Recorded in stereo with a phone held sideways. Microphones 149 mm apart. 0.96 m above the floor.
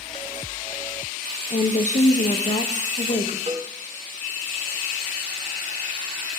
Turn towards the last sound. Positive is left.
turn(degrees=-45)  # may be behind; listen again after turning